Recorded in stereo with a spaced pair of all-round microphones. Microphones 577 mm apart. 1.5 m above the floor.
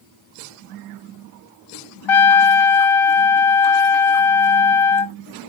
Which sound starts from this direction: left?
A trumpet, at 2.1 s.